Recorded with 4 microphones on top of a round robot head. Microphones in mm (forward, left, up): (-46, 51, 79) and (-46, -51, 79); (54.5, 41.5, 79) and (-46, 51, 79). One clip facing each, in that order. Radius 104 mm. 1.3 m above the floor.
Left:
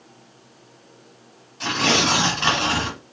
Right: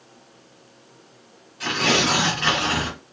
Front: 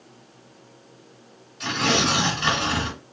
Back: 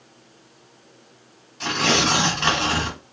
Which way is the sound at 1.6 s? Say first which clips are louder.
Left 1 dB, back 1 dB; 140° left.